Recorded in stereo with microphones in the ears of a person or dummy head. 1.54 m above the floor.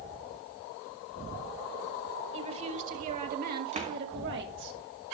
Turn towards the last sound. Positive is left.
turn(degrees=-35)  # may be behind; listen again after turning